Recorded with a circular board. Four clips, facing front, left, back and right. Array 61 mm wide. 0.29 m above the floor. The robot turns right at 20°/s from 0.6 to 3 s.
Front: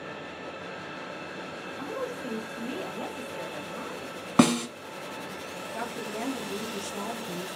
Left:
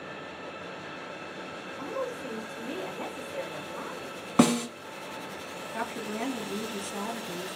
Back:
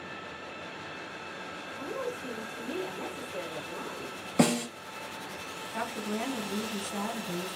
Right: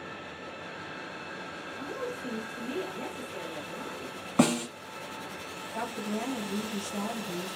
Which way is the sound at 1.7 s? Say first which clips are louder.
Left 3 dB, front 1 dB; 10° left.